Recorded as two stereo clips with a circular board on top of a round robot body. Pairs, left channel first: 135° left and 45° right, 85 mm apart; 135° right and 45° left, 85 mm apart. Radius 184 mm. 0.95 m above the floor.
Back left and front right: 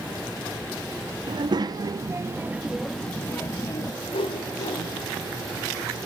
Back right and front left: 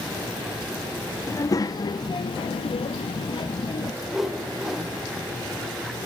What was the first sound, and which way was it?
A child speaking, 80° right.